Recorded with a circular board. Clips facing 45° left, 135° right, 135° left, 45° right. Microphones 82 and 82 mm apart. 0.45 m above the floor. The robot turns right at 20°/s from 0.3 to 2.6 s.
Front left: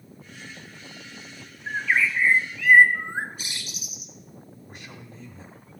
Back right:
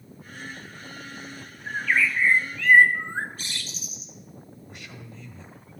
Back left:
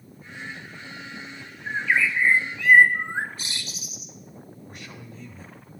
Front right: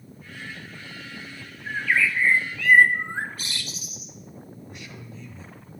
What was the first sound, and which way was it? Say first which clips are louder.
A bird: even, even; 90° left.